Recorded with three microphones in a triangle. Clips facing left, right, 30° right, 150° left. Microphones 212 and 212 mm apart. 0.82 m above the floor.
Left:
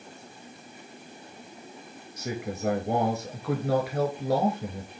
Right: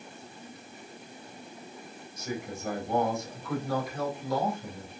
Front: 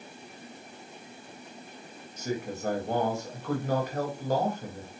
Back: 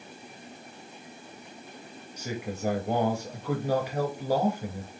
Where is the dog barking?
I don't hear a dog barking.